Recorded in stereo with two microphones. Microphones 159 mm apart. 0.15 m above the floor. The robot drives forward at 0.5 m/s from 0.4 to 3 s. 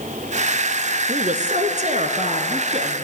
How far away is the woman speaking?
About 1.6 m.